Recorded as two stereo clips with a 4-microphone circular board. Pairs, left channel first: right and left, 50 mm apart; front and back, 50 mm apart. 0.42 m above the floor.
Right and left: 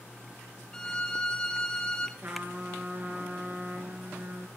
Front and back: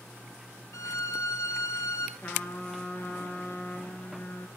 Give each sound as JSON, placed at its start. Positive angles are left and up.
{"t": 0.7, "sound": "a violin", "azimuth_deg": -15, "distance_m": 1.4}
{"t": 2.2, "sound": "a trumpet", "azimuth_deg": 45, "distance_m": 4.0}